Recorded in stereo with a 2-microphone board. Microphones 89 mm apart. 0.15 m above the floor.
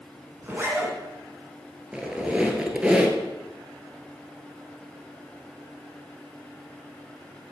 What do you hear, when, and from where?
0.4 s a zipper: 25° right (ahead or behind), 1.4 m
1.9 s a squeak: 10° right (ahead or behind), 0.9 m